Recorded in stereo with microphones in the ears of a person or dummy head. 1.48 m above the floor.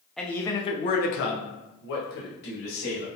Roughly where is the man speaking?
Centre.